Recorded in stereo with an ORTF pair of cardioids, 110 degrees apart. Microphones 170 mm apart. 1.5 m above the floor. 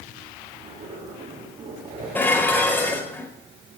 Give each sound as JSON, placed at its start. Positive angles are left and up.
{"t": 0.5, "sound": "a zipper", "azimuth_deg": -35, "distance_m": 9.0}
{"t": 2.1, "sound": "dishes clattering", "azimuth_deg": 10, "distance_m": 5.0}